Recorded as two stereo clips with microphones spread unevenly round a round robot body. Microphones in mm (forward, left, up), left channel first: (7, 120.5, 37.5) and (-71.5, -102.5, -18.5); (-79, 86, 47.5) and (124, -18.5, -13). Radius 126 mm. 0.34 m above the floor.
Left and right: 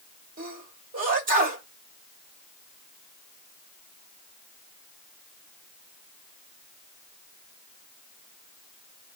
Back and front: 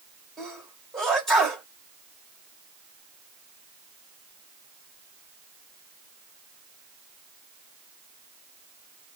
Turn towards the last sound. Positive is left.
turn(degrees=-105)